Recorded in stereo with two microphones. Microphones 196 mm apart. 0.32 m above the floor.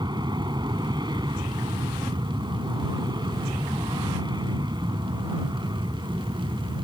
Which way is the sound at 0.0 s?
25° right (ahead or behind).